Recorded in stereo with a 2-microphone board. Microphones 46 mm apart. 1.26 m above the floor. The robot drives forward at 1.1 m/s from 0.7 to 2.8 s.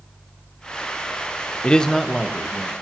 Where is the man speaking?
20° left (ahead or behind), 0.6 m; by 2.7 s 5° left (ahead or behind), 1.7 m.